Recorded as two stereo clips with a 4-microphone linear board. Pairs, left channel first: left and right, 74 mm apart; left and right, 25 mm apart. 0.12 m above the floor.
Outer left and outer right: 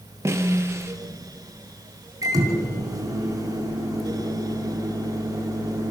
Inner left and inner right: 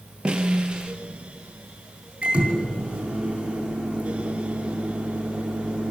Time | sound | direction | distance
0.2 | a snare drum | 40° right (ahead or behind) | 2 m
2.2 | a microwave | 55° right (ahead or behind) | 5.5 m